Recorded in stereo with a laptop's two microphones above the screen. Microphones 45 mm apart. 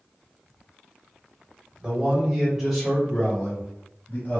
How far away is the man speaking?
About 1.0 m.